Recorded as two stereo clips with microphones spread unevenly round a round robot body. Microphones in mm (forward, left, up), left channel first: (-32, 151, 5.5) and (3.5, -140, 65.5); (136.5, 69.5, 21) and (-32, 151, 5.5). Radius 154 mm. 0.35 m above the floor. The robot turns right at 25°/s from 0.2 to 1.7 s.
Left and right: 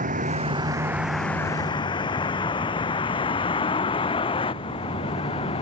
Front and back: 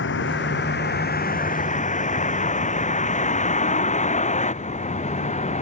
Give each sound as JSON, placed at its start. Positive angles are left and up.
{"t": 0.0, "sound": "a vehicle", "azimuth_deg": -20}